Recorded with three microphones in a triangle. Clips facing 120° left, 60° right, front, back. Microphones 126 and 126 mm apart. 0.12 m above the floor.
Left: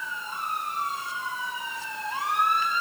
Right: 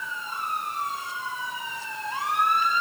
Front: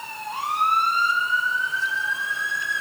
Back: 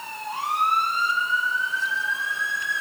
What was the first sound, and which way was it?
Only background noise.